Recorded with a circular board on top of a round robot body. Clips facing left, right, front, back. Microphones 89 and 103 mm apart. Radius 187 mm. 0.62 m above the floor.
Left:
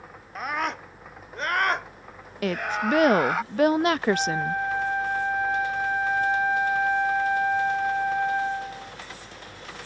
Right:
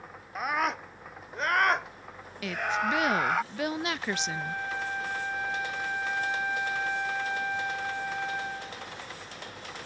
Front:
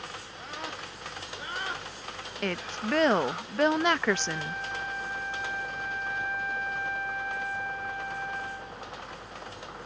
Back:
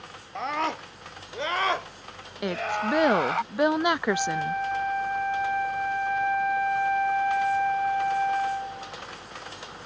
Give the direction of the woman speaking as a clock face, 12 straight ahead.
8 o'clock.